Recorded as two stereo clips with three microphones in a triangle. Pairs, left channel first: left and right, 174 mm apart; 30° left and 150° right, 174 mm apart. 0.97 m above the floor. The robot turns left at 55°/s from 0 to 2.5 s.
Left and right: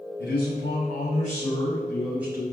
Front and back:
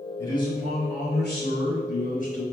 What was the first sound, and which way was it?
A man speaking, 105° left.